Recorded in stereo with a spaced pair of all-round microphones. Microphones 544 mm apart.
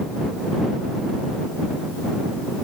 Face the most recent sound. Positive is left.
No sound to turn to.